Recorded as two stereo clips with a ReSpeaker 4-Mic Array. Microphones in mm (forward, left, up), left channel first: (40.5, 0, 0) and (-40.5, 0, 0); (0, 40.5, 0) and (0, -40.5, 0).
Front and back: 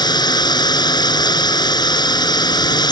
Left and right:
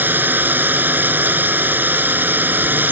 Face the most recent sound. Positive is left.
turn(degrees=-25)